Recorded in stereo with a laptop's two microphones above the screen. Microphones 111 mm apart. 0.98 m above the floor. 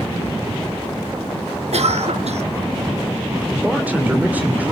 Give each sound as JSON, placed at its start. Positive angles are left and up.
{"t": 1.7, "sound": "a cough", "side_deg": -75, "distance_m": 1.1}
{"t": 3.5, "sound": "a man speaking", "side_deg": -15, "distance_m": 3.0}